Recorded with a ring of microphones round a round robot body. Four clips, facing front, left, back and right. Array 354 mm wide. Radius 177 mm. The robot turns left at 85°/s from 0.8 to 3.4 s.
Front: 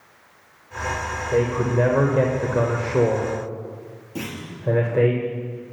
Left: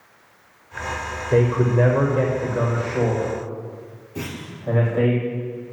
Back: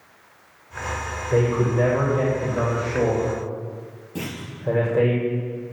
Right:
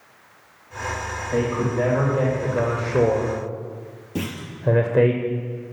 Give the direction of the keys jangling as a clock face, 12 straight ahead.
I don't hear keys jangling.